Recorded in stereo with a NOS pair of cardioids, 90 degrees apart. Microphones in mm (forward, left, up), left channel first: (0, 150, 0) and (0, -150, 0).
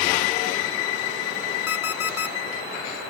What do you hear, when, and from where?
1.7 s an alarm clock: 50° left, 2.0 m